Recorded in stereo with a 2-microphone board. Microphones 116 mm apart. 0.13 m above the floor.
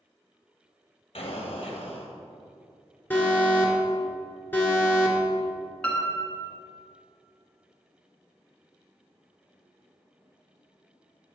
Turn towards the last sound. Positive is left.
turn(degrees=10)  # may be behind; listen again after turning